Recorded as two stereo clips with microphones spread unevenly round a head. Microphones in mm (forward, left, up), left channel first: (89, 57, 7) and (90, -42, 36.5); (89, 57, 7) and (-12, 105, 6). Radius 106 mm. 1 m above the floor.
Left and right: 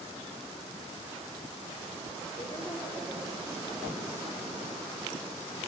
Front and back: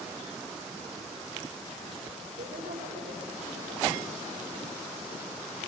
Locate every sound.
2.4 s a woman speaking: 175° left, 4 m; by 4.2 s 170° right, 3.5 m